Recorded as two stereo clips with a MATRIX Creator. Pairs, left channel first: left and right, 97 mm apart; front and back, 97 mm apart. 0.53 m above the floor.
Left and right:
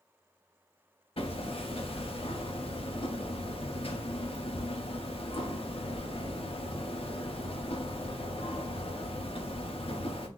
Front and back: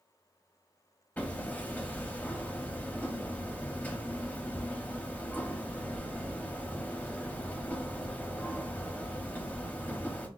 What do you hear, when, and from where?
1.2 s hammering: 75° left, 0.7 m